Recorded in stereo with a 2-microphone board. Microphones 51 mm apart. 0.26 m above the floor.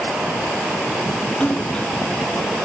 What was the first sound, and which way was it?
A splash, 20° left (ahead or behind).